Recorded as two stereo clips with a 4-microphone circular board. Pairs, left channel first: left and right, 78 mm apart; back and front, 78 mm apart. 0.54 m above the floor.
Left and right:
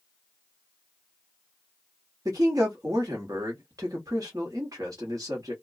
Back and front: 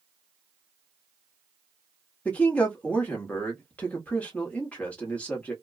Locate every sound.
2.2 s a man speaking: 115° right, 1.0 m